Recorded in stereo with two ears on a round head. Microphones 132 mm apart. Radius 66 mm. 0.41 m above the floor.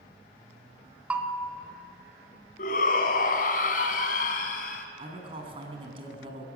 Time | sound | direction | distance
1.1 | a bell | 10° right (ahead or behind) | 1.6 m
2.6 | a shout | 60° left (ahead or behind) | 3 m
5.0 | a man speaking | 35° right (ahead or behind) | 4.5 m